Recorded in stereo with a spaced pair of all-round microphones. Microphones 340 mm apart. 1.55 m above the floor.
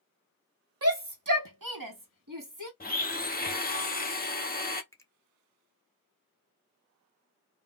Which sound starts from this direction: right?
A shout, at 0.8 s.